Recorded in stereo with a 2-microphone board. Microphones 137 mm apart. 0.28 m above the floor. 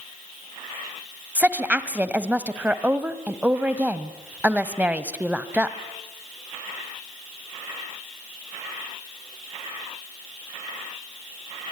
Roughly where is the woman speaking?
Centre.